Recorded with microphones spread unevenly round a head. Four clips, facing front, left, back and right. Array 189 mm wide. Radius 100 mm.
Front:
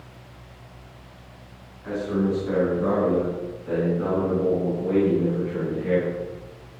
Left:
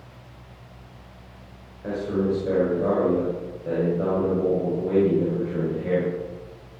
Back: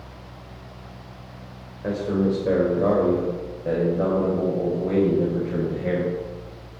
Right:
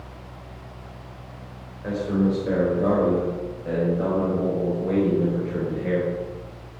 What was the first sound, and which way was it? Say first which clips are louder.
A man speaking: right 1 dB, back 2 dB; 170° left.